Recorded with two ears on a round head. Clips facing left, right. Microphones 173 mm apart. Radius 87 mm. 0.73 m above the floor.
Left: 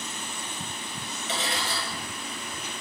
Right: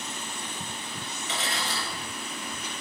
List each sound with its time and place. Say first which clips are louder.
1.3 s cutlery clinking: left 2 dB; 25° left (ahead or behind), 1.5 m